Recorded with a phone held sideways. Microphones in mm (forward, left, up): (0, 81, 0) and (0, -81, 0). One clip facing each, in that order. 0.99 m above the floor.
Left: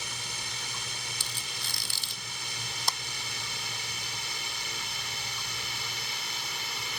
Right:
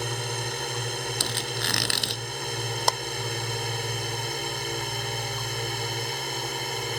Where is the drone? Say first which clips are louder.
Right 12 dB; 60° right (ahead or behind); by 7.0 s 55° right (ahead or behind).